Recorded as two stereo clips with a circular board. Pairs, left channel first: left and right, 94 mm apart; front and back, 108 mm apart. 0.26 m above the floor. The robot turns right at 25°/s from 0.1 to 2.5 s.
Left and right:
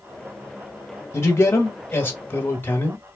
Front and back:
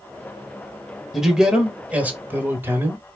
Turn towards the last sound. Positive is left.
turn(degrees=130)